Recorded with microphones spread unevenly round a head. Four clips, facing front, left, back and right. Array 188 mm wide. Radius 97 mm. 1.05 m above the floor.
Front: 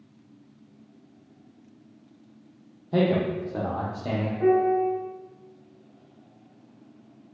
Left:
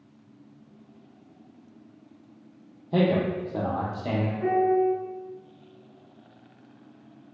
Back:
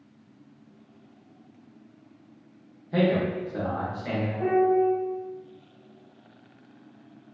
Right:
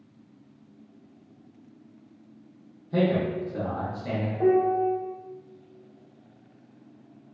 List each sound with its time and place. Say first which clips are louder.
2.9 s a man speaking: left 1 dB, front 1 dB; 50° left, 0.7 m
4.4 s a piano: right 1 dB, even; 100° right, 0.9 m